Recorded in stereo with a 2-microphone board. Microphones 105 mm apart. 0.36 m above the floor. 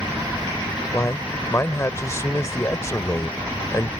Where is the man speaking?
30° left (ahead or behind).